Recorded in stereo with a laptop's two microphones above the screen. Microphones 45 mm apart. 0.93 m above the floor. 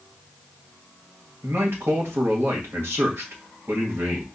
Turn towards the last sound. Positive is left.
turn(degrees=-60)  # may be behind; listen again after turning